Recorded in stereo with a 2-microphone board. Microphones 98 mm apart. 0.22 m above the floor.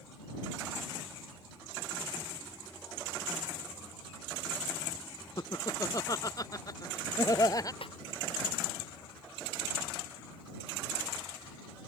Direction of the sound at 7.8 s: 65° left (ahead or behind).